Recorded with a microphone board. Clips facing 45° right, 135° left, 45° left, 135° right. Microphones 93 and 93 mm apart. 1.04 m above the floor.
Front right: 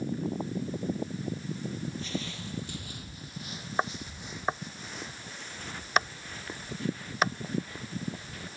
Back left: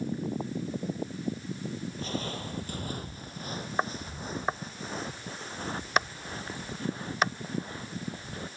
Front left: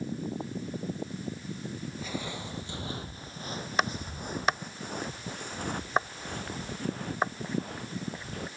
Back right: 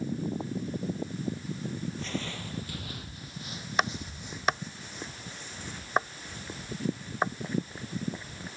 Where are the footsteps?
125° left; by 8.5 s 75° left.